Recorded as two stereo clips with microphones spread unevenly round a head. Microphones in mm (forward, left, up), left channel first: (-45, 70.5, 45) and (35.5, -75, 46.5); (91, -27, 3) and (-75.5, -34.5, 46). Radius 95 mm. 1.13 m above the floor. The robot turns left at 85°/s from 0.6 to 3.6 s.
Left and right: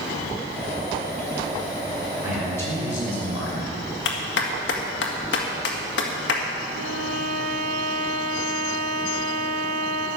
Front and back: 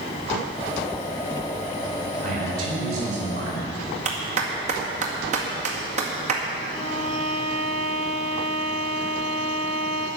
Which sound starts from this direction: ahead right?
A violin, at 6.7 s.